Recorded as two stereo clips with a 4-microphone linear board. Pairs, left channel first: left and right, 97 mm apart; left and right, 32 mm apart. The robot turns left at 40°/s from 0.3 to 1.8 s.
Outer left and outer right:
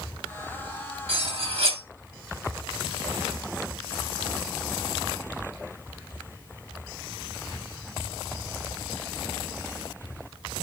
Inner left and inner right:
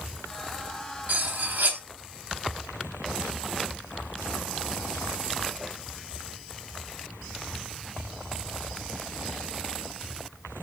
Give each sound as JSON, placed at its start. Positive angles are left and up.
{"t": 1.1, "sound": "cutlery clinking", "side_deg": -75, "distance_m": 0.7}